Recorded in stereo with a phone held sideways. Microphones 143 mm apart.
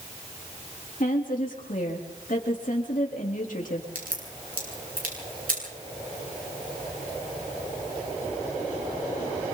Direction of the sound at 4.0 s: 80° right.